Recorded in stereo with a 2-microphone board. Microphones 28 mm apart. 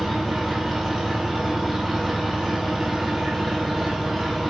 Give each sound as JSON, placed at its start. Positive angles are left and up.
{"t": 0.0, "sound": "an engine running", "side_deg": 0, "distance_m": 1.7}